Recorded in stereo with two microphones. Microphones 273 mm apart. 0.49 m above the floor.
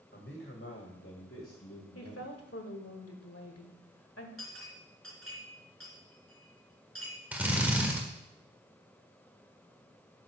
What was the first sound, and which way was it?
A man speaking, 45° left (ahead or behind).